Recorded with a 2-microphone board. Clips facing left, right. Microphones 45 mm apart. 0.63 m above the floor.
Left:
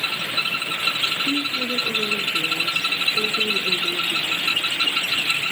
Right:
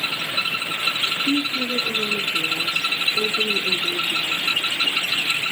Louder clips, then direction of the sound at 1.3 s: Right 1 dB; 35° right (ahead or behind).